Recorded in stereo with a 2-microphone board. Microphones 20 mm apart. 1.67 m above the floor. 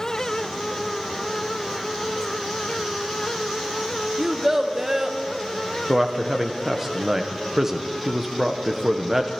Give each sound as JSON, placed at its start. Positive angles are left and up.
{"t": 4.2, "sound": "a child speaking", "side_deg": -20, "distance_m": 0.8}
{"t": 5.9, "sound": "a man speaking", "side_deg": -15, "distance_m": 0.7}